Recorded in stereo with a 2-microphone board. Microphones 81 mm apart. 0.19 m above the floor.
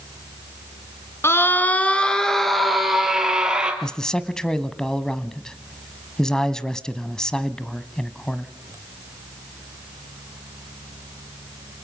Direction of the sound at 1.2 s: 35° left (ahead or behind).